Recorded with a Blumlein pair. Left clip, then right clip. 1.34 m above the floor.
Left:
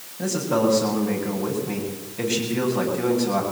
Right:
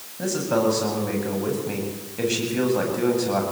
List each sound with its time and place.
0.2 s a man speaking: 10° right, 8.5 m